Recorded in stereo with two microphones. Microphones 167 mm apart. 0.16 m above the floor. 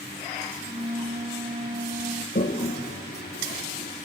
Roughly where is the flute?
Right.